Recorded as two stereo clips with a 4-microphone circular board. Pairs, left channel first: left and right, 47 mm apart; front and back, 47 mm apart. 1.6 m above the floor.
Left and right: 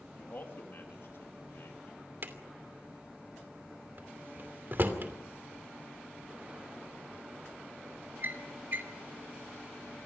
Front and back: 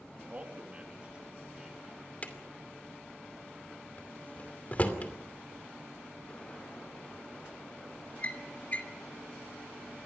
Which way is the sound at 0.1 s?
130° left.